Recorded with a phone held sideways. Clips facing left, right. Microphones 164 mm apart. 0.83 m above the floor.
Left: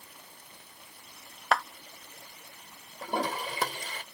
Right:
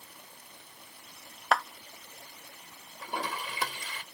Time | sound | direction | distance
1.5 | a clap | centre (ahead or behind) | ?
3.0 | a toilet flushing | 40° left (ahead or behind) | ?